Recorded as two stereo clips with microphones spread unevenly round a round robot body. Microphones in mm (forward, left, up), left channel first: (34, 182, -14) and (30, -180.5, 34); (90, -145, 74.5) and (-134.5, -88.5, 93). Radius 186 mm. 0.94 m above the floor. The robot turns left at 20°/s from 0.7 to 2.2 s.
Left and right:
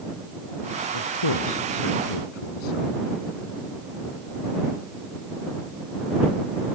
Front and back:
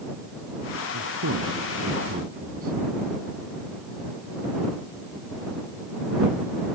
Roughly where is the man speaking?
Behind left.